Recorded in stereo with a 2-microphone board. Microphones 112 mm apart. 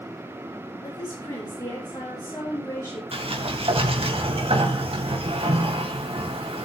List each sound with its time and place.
0.8 s a woman speaking: 40° left (ahead or behind), 9 m
3.1 s a sliding door: 65° right (ahead or behind), 2.5 m